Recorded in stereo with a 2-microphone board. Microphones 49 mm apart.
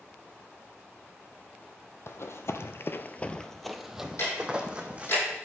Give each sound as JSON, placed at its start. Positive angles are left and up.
{"t": 2.1, "sound": "running footsteps", "side_deg": 60, "distance_m": 1.0}
{"t": 4.2, "sound": "ticking", "side_deg": 60, "distance_m": 5.5}